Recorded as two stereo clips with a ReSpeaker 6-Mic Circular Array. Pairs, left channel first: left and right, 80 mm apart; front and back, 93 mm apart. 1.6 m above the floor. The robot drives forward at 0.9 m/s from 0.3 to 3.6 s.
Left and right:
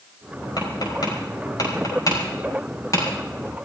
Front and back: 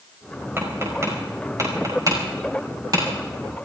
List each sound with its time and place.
0.6 s tapping: 115° left, 4.5 m; by 3.0 s 135° left, 6 m